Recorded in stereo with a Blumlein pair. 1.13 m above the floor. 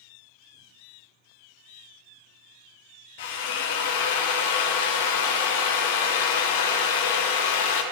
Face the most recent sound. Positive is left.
turn(degrees=50)